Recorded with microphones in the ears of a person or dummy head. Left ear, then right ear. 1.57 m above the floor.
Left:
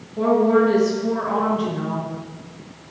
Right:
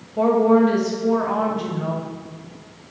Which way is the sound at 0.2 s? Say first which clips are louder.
Right 1 dB; 25° right (ahead or behind).